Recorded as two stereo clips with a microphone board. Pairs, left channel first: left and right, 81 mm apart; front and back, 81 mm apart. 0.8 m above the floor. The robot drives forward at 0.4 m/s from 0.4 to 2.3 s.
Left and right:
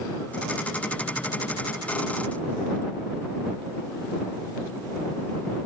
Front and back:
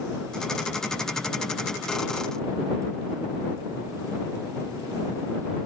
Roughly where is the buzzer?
I don't hear a buzzer.